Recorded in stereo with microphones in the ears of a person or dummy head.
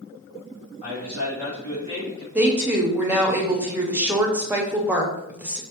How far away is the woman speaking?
About 0.5 m.